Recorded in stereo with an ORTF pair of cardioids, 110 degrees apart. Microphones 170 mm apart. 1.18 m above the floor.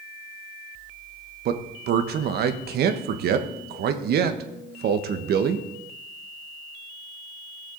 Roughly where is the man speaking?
Ahead right.